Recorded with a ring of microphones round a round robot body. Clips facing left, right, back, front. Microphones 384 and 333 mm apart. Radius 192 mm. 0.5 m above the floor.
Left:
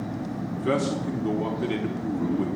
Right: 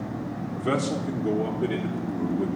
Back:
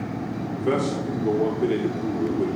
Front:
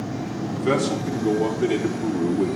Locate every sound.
0.6 s a man speaking: straight ahead, 1.2 m; by 2.5 s 65° left, 1.7 m